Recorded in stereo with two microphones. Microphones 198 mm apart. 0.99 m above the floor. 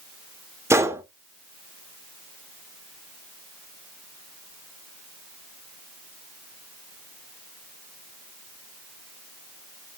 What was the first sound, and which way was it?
A gunshot, 15° right (ahead or behind).